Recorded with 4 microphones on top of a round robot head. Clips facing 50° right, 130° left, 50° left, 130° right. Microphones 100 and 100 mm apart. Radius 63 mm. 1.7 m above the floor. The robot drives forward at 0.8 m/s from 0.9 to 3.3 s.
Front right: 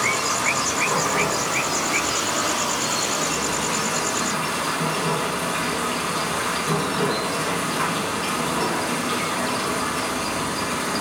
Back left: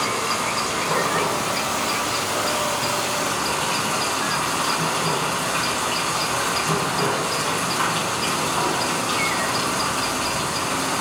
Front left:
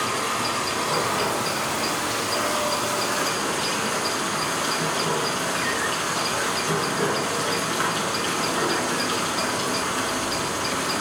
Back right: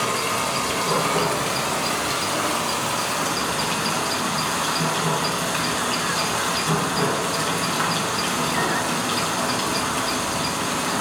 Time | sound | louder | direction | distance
0.0 | running water | even, back right 2 dB | 145° right | 1.6 m